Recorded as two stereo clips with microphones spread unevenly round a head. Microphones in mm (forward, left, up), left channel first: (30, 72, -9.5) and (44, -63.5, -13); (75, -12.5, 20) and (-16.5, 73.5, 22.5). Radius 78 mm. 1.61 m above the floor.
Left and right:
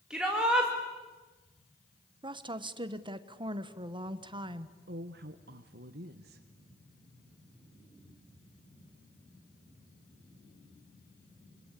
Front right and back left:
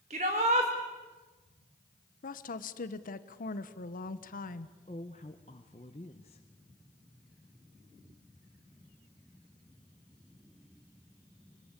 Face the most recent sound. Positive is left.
turn(degrees=-100)